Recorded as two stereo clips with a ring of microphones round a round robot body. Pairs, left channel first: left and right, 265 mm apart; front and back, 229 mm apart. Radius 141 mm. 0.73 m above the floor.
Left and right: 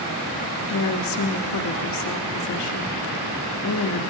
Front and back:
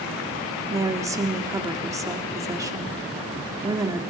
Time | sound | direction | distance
0.7 | a woman speaking | 105° left | 1.5 m